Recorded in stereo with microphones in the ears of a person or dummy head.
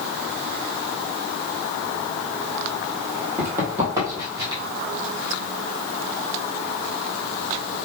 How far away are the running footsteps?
About 2.5 m.